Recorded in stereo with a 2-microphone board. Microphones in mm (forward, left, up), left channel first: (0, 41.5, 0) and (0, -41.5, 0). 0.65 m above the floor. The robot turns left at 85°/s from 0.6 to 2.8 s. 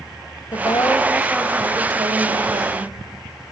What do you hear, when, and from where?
0.5 s a woman speaking: 65° left, 3 m; by 2.9 s 120° right, 3 m